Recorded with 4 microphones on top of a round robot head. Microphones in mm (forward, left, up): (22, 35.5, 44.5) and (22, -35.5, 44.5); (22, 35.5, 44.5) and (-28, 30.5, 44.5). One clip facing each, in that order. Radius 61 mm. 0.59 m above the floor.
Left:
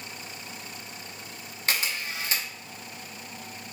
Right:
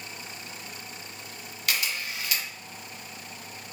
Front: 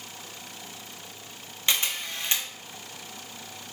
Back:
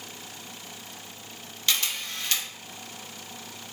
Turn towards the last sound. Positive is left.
turn(degrees=60)